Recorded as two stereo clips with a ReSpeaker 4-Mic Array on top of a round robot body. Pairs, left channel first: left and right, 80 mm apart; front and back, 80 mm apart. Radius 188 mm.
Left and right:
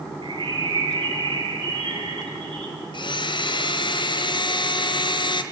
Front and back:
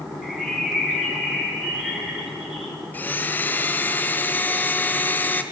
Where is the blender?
70° left, 1.5 m.